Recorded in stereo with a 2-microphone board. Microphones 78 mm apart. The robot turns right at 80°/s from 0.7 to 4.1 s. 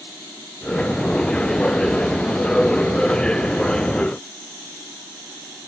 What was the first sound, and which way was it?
Only background noise.